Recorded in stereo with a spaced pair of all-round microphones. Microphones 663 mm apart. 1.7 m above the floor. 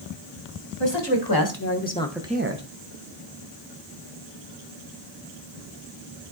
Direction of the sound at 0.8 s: 45° left (ahead or behind).